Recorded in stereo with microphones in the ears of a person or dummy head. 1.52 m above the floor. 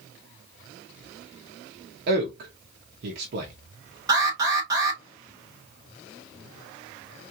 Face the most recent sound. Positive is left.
turn(degrees=-25)  # may be behind; listen again after turning